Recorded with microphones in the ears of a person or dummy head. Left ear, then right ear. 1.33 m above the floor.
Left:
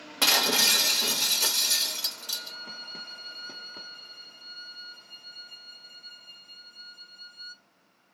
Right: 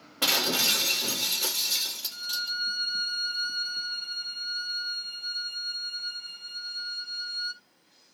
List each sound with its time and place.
0.2 s breaking glass: 65° left (ahead or behind), 1.1 m
2.1 s a violin: 45° right (ahead or behind), 0.5 m